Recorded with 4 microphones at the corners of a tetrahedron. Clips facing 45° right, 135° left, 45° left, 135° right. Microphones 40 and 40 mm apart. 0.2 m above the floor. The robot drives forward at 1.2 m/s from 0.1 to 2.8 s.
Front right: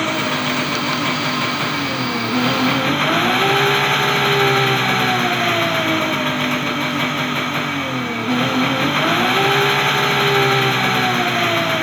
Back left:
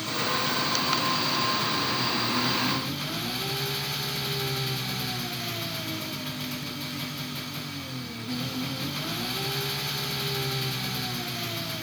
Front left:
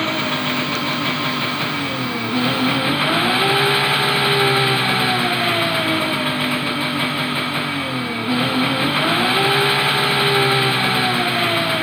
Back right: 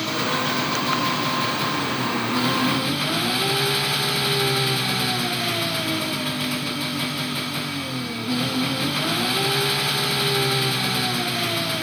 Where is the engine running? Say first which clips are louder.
Front right 9 dB, front left 3 dB; 15° right.